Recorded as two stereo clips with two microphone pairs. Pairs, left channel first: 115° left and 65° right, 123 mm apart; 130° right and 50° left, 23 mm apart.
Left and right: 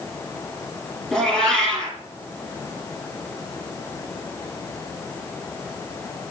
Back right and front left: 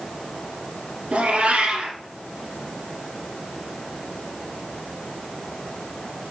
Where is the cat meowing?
35° left, 2.0 m.